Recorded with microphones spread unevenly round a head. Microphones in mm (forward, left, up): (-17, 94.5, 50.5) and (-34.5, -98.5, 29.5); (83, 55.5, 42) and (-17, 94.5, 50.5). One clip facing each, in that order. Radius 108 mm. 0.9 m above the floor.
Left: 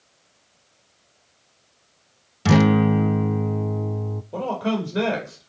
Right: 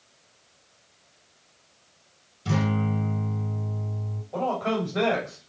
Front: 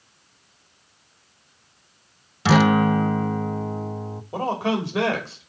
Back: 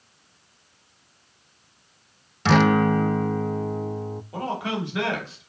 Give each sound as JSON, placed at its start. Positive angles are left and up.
{"t": 2.5, "sound": "a guitar", "azimuth_deg": 65, "distance_m": 0.5}
{"t": 4.3, "sound": "a man speaking", "azimuth_deg": 30, "distance_m": 3.0}